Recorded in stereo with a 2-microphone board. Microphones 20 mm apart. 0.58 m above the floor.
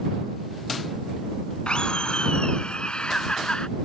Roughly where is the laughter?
Left.